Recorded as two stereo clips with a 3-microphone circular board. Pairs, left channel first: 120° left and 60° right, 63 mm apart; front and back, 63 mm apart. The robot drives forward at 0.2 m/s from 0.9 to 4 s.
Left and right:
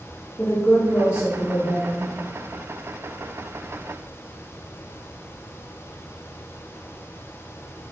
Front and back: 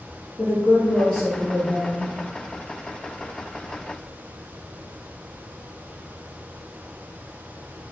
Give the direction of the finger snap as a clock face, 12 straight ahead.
I don't hear a finger snap.